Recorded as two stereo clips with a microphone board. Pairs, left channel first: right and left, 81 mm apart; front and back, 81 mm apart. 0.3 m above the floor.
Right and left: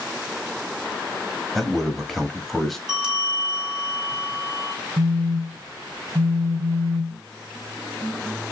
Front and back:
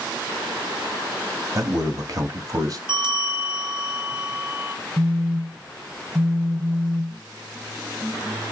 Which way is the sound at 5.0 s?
100° left.